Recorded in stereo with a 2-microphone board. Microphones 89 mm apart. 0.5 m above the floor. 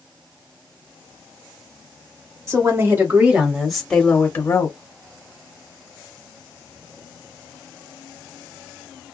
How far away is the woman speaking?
About 1.6 m.